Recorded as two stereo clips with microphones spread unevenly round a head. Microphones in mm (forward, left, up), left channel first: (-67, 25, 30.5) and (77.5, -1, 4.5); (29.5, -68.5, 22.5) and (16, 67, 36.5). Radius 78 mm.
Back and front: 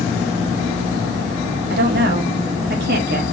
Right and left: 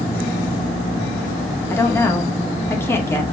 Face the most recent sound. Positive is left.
turn(degrees=-15)